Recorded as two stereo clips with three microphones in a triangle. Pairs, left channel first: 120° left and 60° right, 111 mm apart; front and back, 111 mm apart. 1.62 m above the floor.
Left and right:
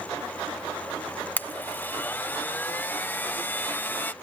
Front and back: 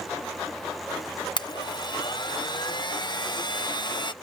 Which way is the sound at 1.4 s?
45° left.